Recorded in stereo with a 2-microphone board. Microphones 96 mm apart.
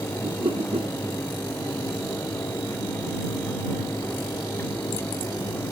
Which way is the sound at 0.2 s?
75° right (ahead or behind).